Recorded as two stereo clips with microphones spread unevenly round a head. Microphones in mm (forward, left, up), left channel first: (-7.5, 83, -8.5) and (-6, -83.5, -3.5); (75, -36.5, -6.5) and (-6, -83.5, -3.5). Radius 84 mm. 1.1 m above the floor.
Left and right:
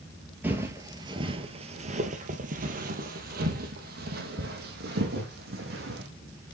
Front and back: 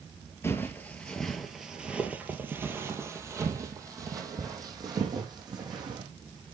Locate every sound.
0.4 s footsteps: 20° right, 1.3 m; by 6.1 s 115° right, 3 m